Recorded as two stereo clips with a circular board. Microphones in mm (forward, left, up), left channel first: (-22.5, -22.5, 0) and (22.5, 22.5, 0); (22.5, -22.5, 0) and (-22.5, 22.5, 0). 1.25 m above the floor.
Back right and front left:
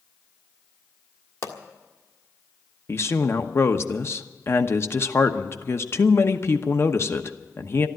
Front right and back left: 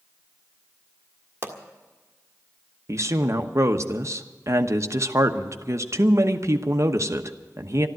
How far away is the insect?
I don't hear an insect.